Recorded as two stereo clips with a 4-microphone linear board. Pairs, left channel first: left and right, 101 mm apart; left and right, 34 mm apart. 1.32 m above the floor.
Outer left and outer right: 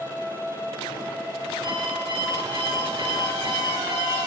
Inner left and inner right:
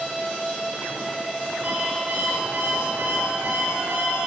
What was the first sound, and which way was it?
An alarm clock, 50° right (ahead or behind).